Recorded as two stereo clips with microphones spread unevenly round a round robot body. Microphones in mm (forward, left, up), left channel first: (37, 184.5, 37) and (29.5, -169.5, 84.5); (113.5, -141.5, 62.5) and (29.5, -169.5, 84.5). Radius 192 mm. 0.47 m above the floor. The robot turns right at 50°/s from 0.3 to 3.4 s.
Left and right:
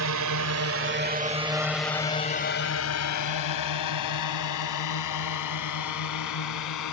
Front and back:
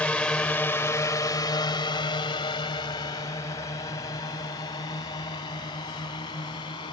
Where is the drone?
50° right; by 6.9 s 55° left.